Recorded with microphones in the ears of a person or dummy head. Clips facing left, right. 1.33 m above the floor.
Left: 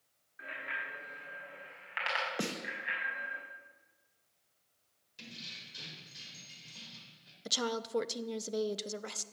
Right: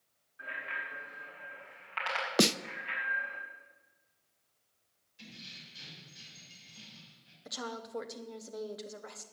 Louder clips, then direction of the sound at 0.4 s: Even; 30° left (ahead or behind).